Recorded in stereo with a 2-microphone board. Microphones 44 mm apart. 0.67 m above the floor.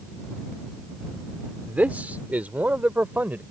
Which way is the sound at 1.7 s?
40° right (ahead or behind).